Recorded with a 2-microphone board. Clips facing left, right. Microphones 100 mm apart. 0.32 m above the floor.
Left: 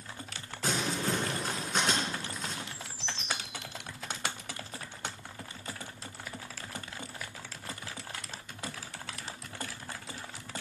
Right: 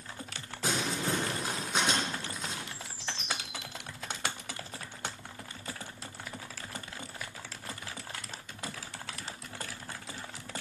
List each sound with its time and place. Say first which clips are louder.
0.6 s crumpling: even; 10° right (ahead or behind), 2 m
2.6 s a bird: even; 10° right (ahead or behind), 2.5 m